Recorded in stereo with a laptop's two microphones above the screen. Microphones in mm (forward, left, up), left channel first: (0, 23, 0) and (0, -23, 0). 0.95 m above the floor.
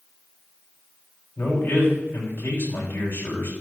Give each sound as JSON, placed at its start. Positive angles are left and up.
{"t": 1.4, "sound": "a man speaking", "side_deg": 55, "distance_m": 7.0}